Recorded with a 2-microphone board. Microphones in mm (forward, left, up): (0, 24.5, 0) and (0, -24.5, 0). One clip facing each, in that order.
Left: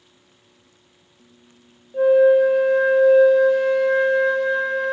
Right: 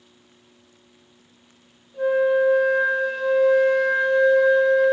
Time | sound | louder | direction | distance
1.9 | a flute | left 6 dB | 50° left (ahead or behind) | 1.3 m